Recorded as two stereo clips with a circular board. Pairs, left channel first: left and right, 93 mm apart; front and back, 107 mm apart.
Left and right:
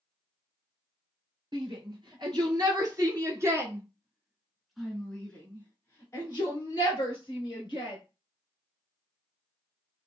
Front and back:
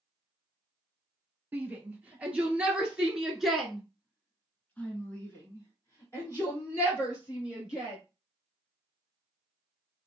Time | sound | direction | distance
1.5 | a shout | 110° right | 2.0 m